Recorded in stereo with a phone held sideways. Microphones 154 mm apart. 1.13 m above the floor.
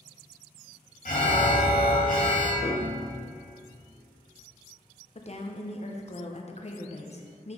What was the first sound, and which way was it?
An alarm, 65° left (ahead or behind).